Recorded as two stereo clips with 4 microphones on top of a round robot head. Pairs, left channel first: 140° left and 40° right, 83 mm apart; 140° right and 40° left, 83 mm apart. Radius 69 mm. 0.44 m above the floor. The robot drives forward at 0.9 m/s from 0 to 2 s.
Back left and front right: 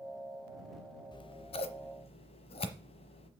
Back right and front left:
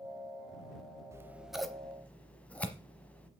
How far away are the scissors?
About 0.7 m.